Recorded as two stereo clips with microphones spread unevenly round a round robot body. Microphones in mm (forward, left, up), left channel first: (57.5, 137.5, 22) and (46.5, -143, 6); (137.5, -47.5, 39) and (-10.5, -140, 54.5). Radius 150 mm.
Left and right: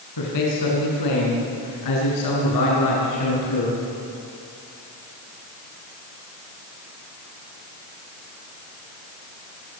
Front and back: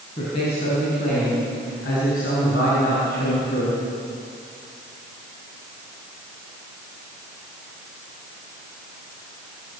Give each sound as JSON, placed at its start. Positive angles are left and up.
{"t": 0.2, "sound": "a man speaking", "azimuth_deg": 100, "distance_m": 5.5}